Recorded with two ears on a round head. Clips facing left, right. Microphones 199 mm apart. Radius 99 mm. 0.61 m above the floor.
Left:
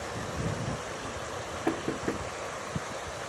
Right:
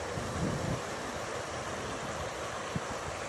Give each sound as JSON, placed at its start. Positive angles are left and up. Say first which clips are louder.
{"t": 1.7, "sound": "knocking", "louder": "left 9 dB", "side_deg": 80}